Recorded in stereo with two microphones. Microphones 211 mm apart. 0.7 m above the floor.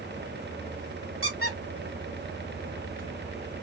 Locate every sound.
1.2 s a squeak: 75° right (ahead or behind), 1.0 m